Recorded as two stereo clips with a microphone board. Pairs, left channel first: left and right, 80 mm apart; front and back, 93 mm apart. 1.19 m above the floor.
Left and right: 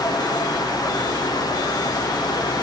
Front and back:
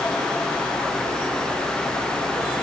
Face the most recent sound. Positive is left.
No sound to turn to.